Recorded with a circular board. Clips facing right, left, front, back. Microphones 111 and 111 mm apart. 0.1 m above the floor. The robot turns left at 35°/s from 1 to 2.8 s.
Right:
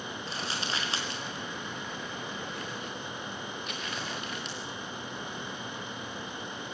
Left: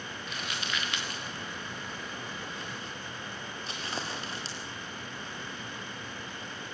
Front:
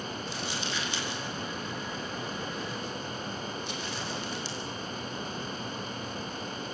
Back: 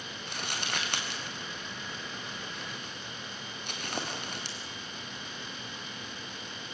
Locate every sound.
0.3 s crumpling: 150° right, 4 m; by 4.6 s 150° left, 4 m